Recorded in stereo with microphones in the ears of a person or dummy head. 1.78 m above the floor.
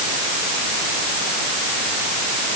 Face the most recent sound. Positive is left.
No sound to turn to.